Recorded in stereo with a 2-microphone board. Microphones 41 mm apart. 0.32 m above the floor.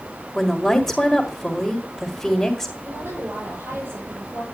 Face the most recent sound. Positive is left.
turn(degrees=-70)  # may be behind; listen again after turning